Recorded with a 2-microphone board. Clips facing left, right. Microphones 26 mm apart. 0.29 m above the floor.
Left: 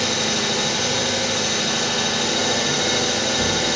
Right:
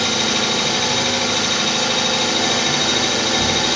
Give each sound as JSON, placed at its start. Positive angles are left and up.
{"t": 0.0, "sound": "an engine running", "side_deg": -65, "distance_m": 1.7}